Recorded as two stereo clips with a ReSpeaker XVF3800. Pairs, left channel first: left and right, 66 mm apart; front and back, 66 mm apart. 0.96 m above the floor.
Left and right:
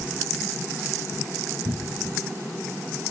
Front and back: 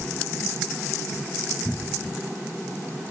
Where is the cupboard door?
80° right, 0.5 m.